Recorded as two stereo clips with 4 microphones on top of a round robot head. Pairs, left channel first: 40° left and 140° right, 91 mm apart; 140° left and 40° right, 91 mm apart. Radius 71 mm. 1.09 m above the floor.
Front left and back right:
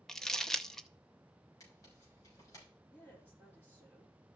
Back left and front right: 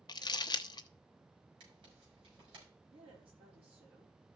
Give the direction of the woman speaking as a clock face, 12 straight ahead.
1 o'clock.